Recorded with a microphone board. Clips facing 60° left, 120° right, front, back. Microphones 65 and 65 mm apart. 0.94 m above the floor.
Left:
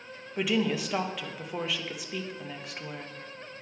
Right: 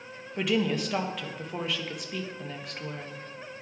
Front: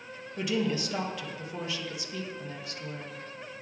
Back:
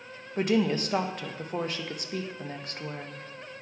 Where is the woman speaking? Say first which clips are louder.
Right 1 dB, back 4 dB; 145° left, 0.6 m.